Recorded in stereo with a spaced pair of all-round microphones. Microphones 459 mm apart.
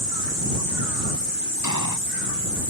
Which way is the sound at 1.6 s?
40° left (ahead or behind).